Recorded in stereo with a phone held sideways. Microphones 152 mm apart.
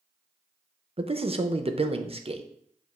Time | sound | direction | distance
1.0 | a man speaking | 40° right (ahead or behind) | 0.7 m